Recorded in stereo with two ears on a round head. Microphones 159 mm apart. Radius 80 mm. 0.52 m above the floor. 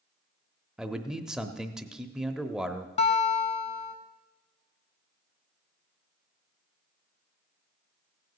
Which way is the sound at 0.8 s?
5° right (ahead or behind).